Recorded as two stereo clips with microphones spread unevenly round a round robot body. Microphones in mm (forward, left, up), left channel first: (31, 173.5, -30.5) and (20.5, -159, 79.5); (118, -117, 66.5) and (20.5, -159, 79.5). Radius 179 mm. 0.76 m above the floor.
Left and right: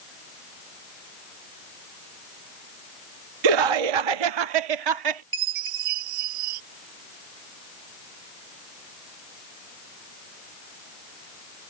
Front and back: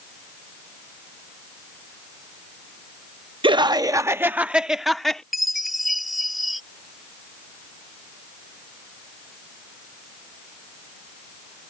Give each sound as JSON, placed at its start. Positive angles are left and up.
{"t": 3.4, "sound": "laughter", "azimuth_deg": -115}
{"t": 5.3, "sound": "a chime", "azimuth_deg": -70}